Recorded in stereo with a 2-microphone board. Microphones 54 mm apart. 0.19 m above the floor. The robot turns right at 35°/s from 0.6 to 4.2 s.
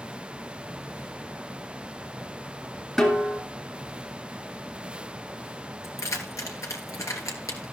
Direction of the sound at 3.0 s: 5° left (ahead or behind).